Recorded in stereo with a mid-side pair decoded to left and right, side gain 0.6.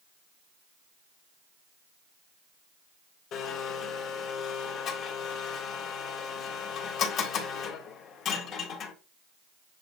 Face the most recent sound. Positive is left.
turn(degrees=55)